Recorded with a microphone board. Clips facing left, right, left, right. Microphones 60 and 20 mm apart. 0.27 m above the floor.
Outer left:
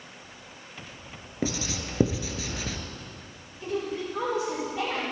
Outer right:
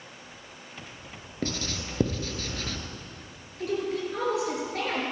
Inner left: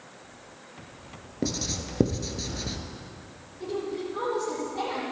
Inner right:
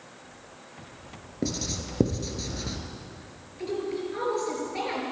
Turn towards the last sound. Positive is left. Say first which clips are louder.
# outer right 2 dB, inner right 1 dB
turn(degrees=-70)  # may be behind; listen again after turning